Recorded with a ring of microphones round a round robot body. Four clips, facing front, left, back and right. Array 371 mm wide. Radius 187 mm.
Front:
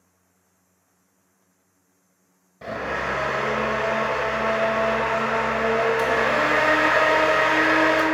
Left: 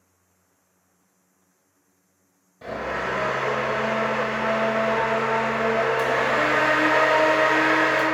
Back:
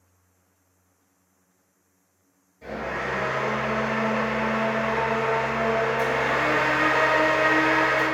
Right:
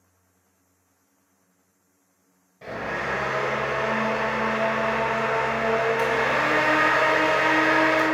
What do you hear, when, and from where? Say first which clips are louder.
2.6 s a blender: left 2 dB, front 3 dB; 10° left, 0.9 m